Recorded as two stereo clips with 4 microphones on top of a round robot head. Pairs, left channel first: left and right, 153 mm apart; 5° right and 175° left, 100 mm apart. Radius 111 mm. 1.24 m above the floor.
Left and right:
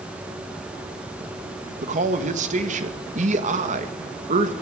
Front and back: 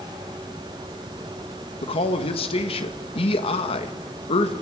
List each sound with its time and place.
1.8 s a man speaking: 45° right, 1.7 m